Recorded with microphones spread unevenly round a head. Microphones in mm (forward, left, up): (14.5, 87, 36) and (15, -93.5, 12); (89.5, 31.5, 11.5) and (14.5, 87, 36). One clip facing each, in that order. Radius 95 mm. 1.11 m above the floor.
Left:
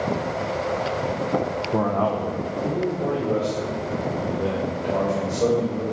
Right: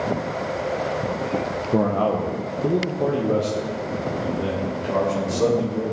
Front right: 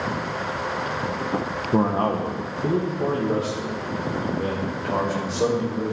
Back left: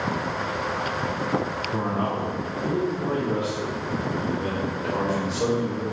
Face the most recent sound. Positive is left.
turn(degrees=-105)